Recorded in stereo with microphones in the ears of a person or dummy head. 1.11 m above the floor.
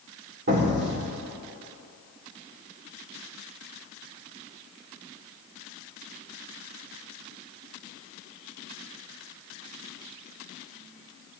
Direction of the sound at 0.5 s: 50° right (ahead or behind).